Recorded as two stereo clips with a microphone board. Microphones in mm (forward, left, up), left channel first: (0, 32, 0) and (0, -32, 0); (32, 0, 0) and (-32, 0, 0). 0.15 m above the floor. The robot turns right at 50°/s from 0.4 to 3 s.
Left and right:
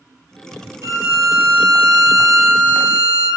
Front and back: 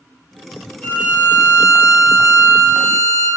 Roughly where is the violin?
Right.